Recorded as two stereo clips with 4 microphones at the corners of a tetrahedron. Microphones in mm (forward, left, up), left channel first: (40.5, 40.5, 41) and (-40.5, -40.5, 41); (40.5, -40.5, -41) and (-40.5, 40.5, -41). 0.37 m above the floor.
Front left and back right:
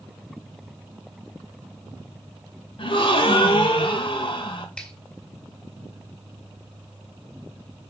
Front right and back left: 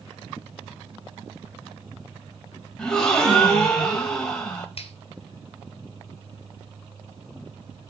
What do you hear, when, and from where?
2.8 s a gasp: 35° left, 1.7 m
4.8 s a finger snap: 35° right, 2 m